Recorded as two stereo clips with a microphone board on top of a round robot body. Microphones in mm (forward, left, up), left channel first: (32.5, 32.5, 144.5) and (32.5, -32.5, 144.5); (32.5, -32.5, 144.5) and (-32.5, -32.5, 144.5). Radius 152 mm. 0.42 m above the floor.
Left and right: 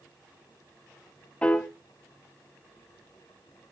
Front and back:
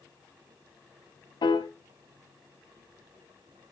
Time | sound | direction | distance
1.4 | a piano | 20° left | 0.6 m